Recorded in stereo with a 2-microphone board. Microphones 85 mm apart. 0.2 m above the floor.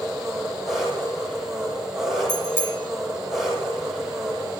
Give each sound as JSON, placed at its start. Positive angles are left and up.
{"t": 0.0, "sound": "an engine running", "side_deg": -5, "distance_m": 6.0}
{"t": 2.3, "sound": "a bicycle bell", "side_deg": 25, "distance_m": 5.0}